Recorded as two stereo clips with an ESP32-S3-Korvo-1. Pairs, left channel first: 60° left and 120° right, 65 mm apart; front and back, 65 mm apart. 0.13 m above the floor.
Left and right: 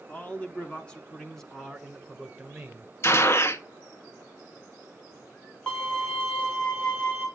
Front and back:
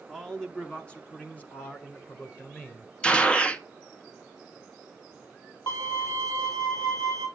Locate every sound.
0.1 s a man speaking: 75° left, 1.4 m; by 2.9 s 40° right, 1.8 m
3.0 s a gunshot: 65° left, 0.7 m
5.7 s a violin: 15° right, 4.5 m